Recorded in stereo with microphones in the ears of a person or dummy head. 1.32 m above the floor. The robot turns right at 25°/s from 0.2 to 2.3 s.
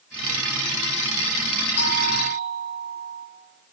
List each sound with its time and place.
1.8 s a doorbell: 85° left, 6 m; by 3.3 s 80° left, 6 m